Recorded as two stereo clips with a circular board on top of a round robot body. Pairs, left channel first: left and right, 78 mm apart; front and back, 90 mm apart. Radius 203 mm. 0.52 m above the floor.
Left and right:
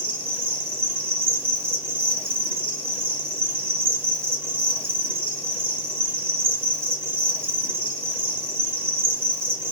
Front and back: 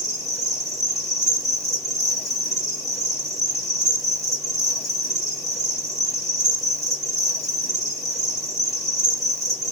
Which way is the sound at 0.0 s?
140° right.